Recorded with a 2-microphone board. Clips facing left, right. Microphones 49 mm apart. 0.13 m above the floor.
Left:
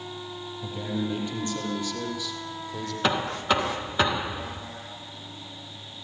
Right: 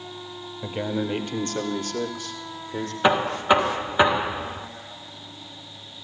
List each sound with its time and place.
0.6 s a man speaking: 55° right (ahead or behind), 3 m; by 2.9 s 40° right (ahead or behind), 4 m
3.0 s knocking: 20° right (ahead or behind), 0.7 m